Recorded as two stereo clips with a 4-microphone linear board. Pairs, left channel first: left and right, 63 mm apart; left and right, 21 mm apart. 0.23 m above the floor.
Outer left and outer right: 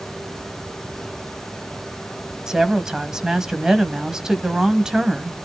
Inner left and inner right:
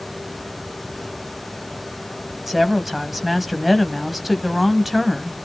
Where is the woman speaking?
10° right (ahead or behind), 1.2 m.